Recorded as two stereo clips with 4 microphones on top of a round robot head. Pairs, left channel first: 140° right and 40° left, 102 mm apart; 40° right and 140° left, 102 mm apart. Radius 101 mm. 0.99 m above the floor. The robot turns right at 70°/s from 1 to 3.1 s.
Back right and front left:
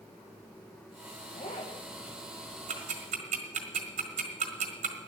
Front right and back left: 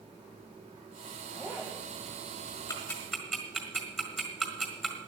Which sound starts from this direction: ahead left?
Ticking, at 2.7 s.